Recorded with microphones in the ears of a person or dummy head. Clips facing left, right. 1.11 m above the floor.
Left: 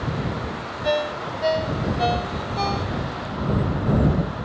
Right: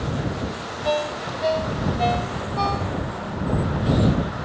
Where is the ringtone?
15° left (ahead or behind).